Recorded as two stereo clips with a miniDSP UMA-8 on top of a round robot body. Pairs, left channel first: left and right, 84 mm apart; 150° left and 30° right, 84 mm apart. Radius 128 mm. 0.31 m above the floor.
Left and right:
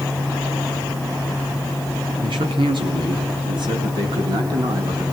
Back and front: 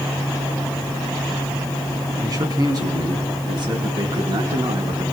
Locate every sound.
2.2 s a man speaking: 75° right, 6 m; by 5.0 s 50° right, 5 m